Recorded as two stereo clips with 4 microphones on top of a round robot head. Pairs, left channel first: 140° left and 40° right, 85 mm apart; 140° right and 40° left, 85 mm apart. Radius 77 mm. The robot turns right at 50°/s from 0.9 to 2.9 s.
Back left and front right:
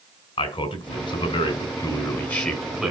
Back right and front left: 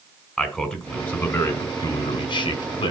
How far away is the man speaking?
About 3 m.